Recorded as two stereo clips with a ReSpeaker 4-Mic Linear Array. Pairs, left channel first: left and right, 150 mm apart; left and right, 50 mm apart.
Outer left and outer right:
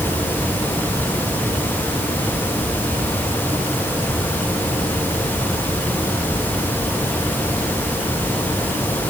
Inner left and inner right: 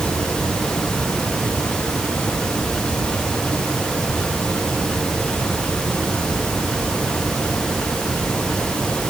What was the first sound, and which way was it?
Only background noise.